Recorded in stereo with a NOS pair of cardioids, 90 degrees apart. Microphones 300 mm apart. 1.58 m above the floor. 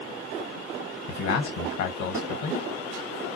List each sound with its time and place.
1.1 s a man speaking: 65° left, 1.2 m